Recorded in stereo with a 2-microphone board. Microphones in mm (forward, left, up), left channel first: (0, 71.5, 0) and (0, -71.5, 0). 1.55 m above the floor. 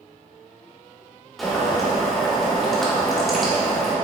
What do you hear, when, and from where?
1.4 s boiling: centre (ahead or behind), 1.8 m